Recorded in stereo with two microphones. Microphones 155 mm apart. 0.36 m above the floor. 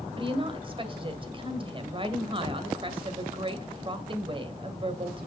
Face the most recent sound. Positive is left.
turn(degrees=-35)  # may be behind; listen again after turning